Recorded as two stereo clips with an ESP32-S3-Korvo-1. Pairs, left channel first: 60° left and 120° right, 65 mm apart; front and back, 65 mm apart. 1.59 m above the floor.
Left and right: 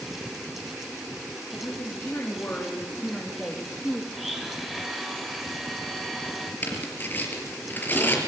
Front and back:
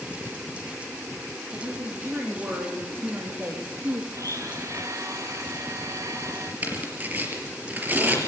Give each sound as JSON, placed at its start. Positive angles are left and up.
{"t": 1.5, "sound": "a woman speaking", "azimuth_deg": 115, "distance_m": 4.5}
{"t": 4.1, "sound": "a blender", "azimuth_deg": 150, "distance_m": 3.0}
{"t": 6.6, "sound": "tearing paper", "azimuth_deg": 120, "distance_m": 4.5}